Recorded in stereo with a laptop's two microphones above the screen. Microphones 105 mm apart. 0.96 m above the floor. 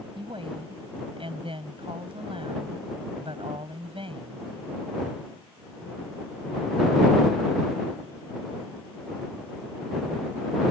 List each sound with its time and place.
0.1 s a woman speaking: 60° right (ahead or behind)